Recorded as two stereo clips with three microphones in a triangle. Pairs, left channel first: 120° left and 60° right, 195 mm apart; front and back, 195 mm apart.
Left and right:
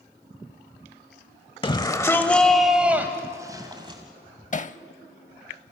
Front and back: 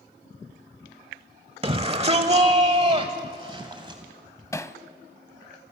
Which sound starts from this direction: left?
Hammering, at 4.5 s.